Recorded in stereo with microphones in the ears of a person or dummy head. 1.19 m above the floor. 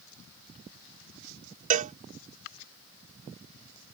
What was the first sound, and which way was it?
A cowbell, 40° right (ahead or behind).